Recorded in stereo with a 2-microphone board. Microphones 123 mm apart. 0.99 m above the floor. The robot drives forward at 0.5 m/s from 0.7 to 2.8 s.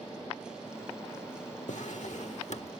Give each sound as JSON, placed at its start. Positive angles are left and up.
{"t": 1.7, "sound": "a drawer", "side_deg": 75, "distance_m": 1.2}